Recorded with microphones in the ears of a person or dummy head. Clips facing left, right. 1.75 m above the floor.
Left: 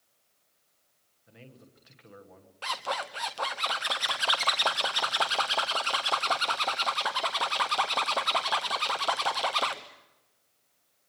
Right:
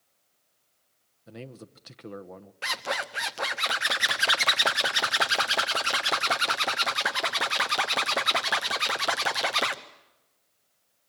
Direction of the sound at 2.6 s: 25° right (ahead or behind).